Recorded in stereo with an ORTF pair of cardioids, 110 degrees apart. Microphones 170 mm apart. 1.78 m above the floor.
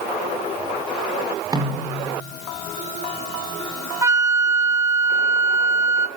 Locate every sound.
1.5 s a snare drum: 20° right, 5 m
4.0 s a flute: 15° right, 1.0 m